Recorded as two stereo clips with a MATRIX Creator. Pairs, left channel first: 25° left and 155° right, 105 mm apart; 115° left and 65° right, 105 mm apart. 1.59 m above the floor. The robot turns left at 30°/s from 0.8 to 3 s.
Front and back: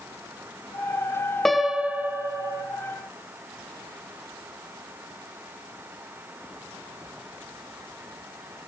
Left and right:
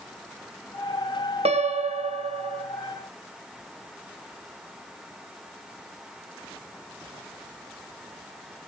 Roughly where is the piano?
Ahead right.